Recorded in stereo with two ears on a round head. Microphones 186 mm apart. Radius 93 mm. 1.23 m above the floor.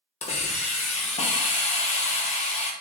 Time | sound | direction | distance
0.2 | a hiss | 35° left (ahead or behind) | 0.7 m